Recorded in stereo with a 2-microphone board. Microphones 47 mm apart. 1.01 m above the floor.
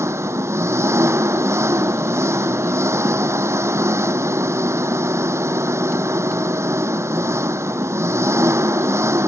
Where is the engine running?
80° right.